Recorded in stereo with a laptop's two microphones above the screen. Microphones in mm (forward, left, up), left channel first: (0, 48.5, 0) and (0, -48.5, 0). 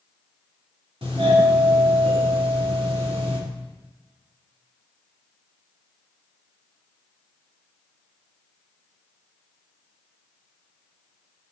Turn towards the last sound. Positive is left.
turn(degrees=-75)  # may be behind; listen again after turning